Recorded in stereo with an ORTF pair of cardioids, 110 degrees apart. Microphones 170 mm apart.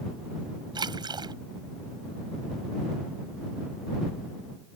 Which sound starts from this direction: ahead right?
A splash, at 0.8 s.